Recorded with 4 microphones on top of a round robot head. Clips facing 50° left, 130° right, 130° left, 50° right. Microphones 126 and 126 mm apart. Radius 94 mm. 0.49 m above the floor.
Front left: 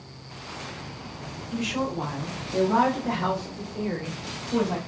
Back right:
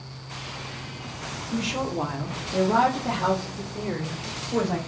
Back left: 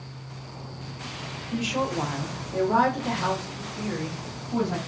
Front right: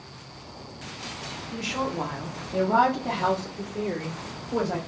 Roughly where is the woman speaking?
Behind.